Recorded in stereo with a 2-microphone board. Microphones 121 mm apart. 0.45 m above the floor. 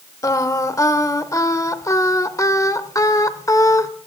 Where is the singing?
25° left (ahead or behind), 0.8 m.